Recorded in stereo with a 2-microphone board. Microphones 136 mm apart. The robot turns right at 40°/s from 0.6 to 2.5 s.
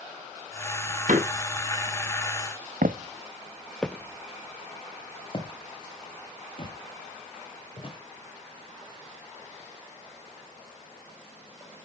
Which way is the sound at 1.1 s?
65° right (ahead or behind).